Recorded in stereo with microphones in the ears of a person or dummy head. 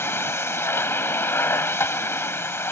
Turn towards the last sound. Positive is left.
turn(degrees=5)  # may be behind; listen again after turning